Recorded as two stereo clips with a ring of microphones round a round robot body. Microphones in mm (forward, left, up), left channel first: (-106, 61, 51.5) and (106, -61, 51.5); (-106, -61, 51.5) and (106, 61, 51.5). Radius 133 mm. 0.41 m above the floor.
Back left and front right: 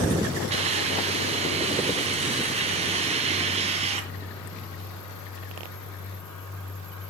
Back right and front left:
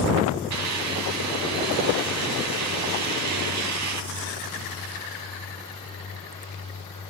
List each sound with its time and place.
0.5 s a hiss: 35° left, 2.5 m